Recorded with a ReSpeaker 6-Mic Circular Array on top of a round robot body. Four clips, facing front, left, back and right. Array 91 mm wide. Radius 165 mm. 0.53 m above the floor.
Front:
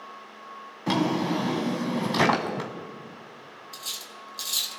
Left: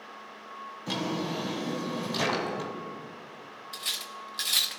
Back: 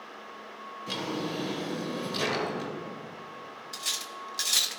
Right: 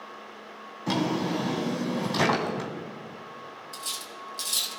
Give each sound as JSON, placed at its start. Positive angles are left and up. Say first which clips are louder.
{"t": 0.9, "sound": "a drawer", "louder": "right 5 dB, front 9 dB", "azimuth_deg": -20, "distance_m": 1.1}
{"t": 3.7, "sound": "cutlery clinking", "louder": "right 1 dB, back 3 dB", "azimuth_deg": 130, "distance_m": 0.7}